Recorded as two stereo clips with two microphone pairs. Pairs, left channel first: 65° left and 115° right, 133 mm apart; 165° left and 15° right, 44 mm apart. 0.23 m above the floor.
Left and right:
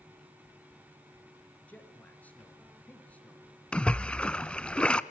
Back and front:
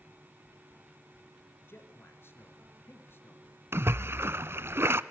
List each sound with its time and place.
1.7 s a man speaking: 145° left, 4 m
3.7 s a splash: 15° right, 0.7 m